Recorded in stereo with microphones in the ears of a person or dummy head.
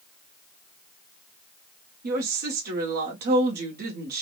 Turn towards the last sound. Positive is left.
turn(degrees=-45)  # may be behind; listen again after turning